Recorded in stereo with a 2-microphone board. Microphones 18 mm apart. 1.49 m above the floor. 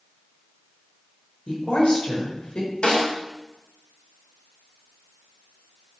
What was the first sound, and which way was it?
A woman speaking, 80° left.